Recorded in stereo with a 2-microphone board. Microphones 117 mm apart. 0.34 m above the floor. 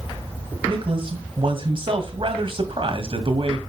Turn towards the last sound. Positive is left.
turn(degrees=-50)  # may be behind; listen again after turning